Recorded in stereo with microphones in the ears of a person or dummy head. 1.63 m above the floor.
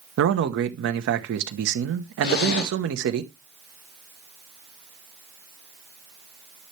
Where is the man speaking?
70° right (ahead or behind), 1.1 m.